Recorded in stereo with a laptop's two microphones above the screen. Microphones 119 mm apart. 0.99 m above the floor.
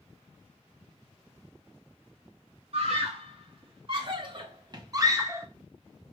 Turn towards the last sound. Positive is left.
turn(degrees=-20)  # may be behind; listen again after turning